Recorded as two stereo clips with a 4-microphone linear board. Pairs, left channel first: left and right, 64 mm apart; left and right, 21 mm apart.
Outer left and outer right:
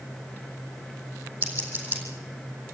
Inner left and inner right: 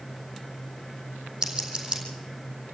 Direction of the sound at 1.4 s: 25° right (ahead or behind).